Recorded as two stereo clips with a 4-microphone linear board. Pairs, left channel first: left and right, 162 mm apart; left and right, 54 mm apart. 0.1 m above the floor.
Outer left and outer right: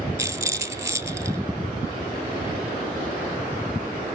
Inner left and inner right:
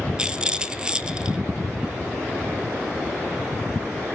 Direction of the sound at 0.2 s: 20° right (ahead or behind).